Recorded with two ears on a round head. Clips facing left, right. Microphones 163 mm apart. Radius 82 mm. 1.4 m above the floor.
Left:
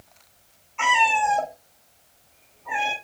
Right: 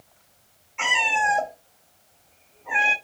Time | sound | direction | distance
0.8 | a cat meowing | 20° right (ahead or behind) | 1.4 m